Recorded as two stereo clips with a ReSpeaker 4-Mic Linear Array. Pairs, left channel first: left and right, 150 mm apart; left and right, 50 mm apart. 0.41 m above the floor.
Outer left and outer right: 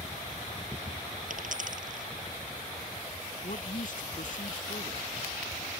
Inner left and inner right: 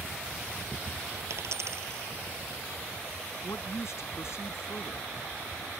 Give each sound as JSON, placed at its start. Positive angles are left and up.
{"t": 1.3, "sound": "a dropped coin", "side_deg": -65}
{"t": 3.4, "sound": "a woman speaking", "side_deg": 65}